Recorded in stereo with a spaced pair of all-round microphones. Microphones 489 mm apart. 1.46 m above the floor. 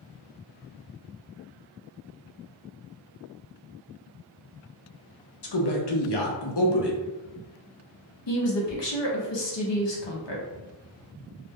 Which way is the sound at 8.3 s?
60° left (ahead or behind).